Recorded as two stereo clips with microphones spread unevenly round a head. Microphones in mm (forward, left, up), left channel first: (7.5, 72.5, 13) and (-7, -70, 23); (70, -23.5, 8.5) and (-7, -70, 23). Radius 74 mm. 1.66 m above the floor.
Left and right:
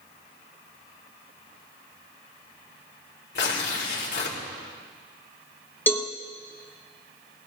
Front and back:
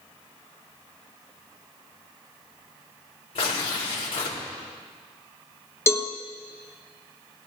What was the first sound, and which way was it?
Tearing paper, 70° left.